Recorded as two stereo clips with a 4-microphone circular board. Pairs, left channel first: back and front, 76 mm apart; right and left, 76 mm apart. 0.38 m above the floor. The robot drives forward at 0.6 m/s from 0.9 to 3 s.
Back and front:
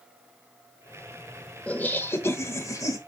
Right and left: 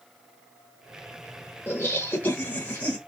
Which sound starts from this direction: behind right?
Laughter, at 1.7 s.